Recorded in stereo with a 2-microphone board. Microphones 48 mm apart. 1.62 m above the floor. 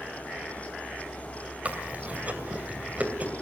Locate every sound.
1.6 s chewing: 30° right (ahead or behind), 2.5 m